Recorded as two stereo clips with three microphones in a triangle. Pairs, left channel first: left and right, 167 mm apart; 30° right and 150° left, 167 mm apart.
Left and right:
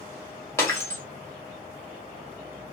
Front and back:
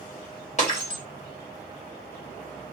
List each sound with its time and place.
0.6 s breaking glass: 15° left, 1.4 m